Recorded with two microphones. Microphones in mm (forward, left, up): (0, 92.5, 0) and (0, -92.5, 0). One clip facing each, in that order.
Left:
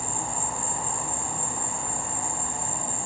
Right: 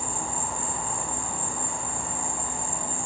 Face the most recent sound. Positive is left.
turn(degrees=40)  # may be behind; listen again after turning